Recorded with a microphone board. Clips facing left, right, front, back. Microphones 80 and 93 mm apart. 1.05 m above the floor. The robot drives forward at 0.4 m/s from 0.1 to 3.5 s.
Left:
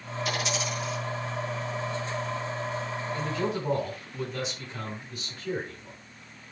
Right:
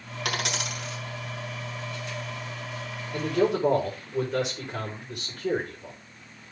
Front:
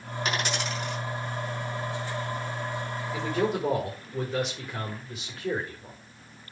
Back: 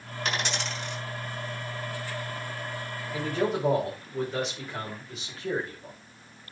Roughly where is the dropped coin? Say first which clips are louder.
Even, front 1 dB; right.